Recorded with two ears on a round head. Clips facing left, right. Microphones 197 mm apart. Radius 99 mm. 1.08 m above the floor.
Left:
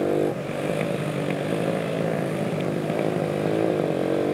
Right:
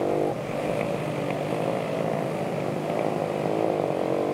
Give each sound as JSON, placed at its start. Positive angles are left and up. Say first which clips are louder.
{"t": 0.0, "sound": "a motorcycle", "louder": "left 2 dB", "side_deg": 20}